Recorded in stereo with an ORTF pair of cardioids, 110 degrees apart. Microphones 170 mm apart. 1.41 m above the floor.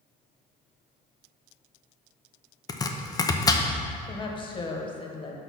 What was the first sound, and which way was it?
Chopping, 20° left.